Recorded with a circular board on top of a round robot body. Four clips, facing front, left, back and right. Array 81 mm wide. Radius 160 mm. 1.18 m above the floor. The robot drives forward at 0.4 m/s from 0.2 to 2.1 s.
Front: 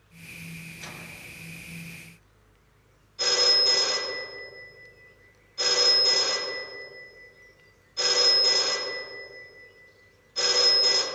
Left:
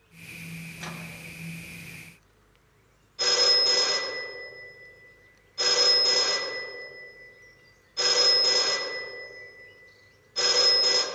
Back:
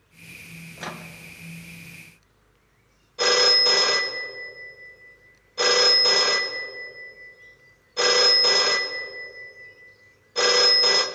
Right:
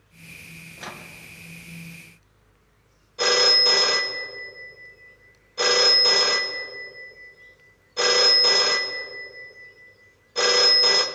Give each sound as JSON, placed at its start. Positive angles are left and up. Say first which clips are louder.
{"t": 0.8, "sound": "a microwave", "louder": "right 3 dB, back 7 dB", "azimuth_deg": -165, "distance_m": 0.6}
{"t": 3.2, "sound": "a phone ringing", "louder": "right 6 dB, back 7 dB", "azimuth_deg": -140, "distance_m": 1.1}